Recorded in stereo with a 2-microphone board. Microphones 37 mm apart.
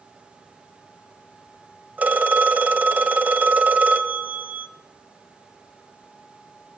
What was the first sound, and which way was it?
A phone ringing, 50° right (ahead or behind).